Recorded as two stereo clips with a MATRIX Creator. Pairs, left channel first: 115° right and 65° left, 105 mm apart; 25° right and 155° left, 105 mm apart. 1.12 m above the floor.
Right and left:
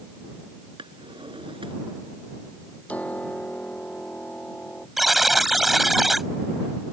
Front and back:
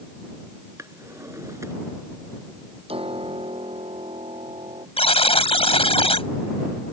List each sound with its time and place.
0.8 s a drawer: 100° left
2.9 s a piano: 170° left
5.0 s a buzzer: 20° right